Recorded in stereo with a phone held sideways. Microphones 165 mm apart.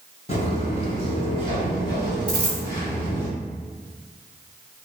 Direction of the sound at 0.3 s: 40° left (ahead or behind).